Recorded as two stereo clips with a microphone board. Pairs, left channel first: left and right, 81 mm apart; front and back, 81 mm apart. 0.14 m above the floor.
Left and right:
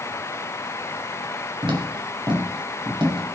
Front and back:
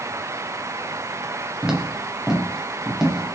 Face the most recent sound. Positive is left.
turn(degrees=-95)